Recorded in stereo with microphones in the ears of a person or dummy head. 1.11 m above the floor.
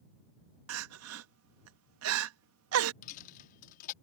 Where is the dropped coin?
45° left (ahead or behind).